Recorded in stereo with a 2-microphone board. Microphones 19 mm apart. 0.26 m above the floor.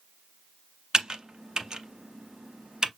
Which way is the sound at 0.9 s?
40° right (ahead or behind).